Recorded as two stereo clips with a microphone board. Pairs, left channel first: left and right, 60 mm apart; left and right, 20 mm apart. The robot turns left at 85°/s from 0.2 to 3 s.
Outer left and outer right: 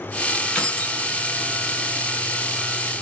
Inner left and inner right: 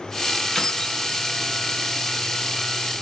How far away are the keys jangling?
About 0.9 m.